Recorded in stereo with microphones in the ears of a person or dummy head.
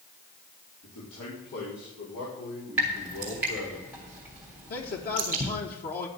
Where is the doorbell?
I don't hear a doorbell.